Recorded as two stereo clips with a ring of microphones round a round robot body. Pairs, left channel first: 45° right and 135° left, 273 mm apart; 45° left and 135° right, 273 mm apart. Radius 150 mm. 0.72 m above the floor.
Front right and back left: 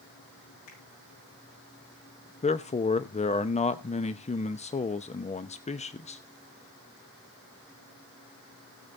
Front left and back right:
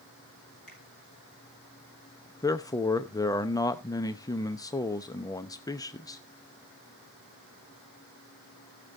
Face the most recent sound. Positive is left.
turn(degrees=-15)